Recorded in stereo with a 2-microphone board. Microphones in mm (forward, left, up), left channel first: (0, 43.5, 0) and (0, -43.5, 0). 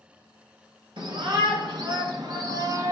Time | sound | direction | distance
1.0 | a shout | 65° right (ahead or behind) | 2.5 m